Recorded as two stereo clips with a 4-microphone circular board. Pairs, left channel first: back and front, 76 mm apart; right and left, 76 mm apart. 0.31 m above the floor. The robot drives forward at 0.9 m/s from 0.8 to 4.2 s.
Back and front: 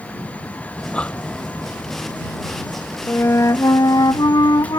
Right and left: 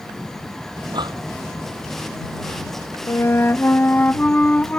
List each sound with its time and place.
0.8 s breathing: 105° left; by 3.0 s 115° left
3.1 s a flute: 125° right; by 4.8 s 160° right